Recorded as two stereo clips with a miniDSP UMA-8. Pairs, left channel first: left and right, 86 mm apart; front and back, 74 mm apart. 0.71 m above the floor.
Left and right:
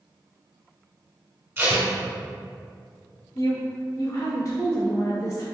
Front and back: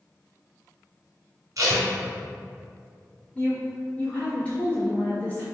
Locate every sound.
1.6 s tape being pulled: 150° right, 1.3 m
3.4 s a woman speaking: 60° left, 1.4 m